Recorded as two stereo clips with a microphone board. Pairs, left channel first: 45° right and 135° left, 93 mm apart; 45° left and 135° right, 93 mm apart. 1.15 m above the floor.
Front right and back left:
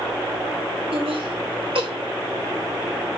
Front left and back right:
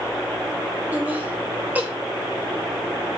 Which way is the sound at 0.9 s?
155° left.